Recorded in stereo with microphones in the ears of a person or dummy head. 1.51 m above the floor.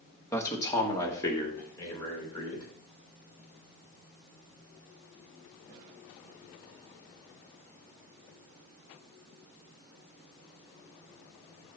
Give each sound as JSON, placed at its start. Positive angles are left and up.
{"t": 0.3, "sound": "a man speaking", "side_deg": 15, "distance_m": 1.6}